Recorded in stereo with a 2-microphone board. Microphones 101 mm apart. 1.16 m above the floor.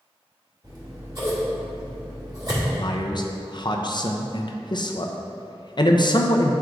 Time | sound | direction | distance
0.6 | scissors | 40° right (ahead or behind) | 1.9 m
2.8 | a man speaking | 45° left (ahead or behind) | 0.6 m